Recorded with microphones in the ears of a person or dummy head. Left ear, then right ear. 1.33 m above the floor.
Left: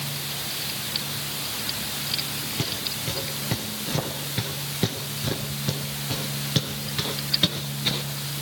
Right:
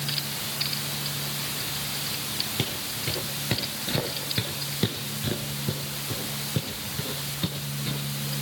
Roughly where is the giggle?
No giggle in this recording.